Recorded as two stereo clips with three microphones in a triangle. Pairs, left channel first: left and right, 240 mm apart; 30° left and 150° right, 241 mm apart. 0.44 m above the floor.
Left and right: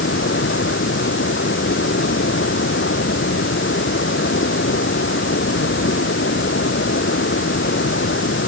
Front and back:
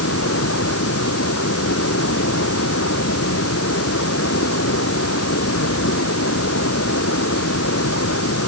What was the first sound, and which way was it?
Running water, 50° left.